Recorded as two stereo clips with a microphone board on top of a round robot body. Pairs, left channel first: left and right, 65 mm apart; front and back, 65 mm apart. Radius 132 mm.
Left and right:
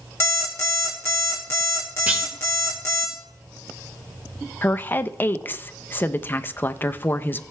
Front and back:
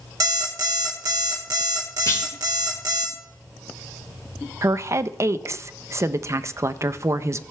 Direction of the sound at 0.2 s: 145° left.